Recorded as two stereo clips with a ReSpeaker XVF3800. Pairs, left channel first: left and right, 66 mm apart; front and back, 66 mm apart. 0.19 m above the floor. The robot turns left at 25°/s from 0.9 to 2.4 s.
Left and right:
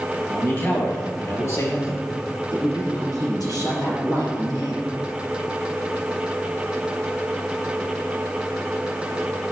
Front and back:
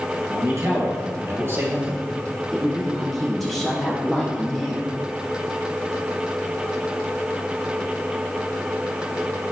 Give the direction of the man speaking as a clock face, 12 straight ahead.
7 o'clock.